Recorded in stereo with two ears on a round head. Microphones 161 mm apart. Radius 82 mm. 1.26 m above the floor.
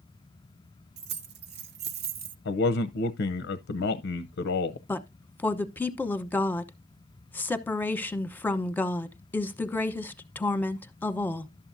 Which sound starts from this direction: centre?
A woman speaking, at 4.9 s.